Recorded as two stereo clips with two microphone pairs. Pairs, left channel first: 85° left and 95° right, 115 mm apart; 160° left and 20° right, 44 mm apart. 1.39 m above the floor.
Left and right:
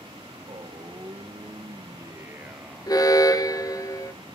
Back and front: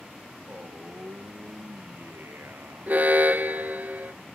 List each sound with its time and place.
0.5 s a man speaking: 50° right, 1.8 m; by 3.0 s straight ahead, 1.0 m
2.9 s an alarm: 30° left, 1.0 m